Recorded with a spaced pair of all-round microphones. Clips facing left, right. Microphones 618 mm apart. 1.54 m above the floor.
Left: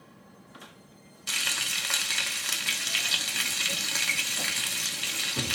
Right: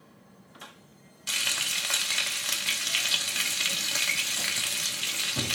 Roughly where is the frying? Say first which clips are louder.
Even; centre.